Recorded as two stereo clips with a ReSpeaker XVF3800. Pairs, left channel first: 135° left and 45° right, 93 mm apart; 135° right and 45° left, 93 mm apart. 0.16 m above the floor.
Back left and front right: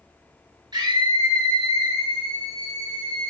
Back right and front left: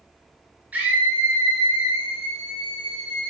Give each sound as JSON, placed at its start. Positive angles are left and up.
{"t": 0.7, "sound": "a scream", "azimuth_deg": -25, "distance_m": 2.5}